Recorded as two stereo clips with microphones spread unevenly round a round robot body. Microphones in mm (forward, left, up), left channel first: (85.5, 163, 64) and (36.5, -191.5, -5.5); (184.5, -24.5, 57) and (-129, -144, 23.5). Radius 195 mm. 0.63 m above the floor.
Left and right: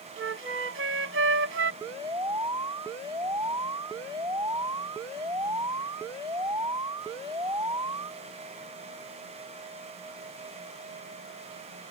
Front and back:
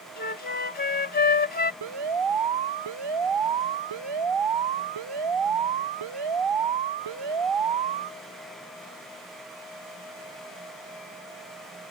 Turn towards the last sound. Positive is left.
turn(degrees=180)